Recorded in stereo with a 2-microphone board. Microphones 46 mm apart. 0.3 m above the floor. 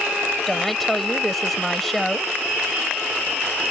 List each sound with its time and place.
0.5 s a woman speaking: 5° left (ahead or behind)